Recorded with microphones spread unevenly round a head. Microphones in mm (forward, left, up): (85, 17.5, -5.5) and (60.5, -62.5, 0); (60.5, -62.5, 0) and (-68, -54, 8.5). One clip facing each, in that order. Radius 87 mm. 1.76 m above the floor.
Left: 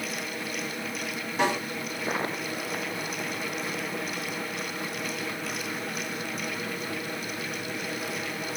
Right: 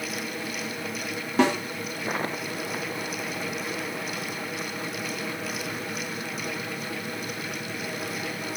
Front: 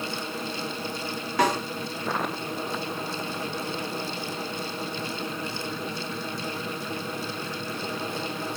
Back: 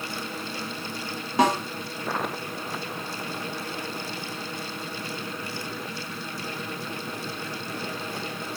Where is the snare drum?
120° right, 2.5 m.